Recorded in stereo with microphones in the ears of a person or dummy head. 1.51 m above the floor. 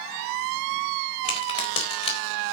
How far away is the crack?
About 4 m.